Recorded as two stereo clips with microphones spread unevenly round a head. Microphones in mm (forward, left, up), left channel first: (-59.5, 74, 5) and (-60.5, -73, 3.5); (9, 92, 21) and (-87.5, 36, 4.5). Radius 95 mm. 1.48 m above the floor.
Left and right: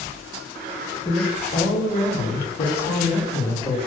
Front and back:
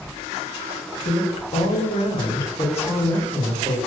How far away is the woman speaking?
About 0.7 m.